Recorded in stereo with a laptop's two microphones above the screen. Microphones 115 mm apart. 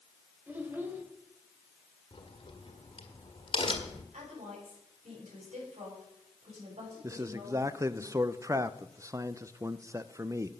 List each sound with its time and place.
0.5 s a child speaking: 15° right (ahead or behind), 4 m
2.1 s a crack: 50° left (ahead or behind), 1.6 m
4.1 s a woman speaking: 85° right, 8 m
7.0 s a man speaking: 25° right (ahead or behind), 0.6 m